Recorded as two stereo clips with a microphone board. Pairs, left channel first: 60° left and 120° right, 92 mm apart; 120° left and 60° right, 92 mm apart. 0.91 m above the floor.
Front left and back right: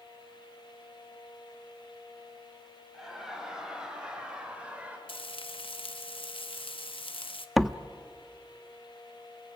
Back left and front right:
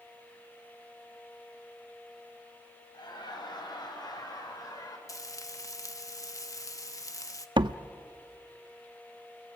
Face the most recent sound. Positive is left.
turn(degrees=-30)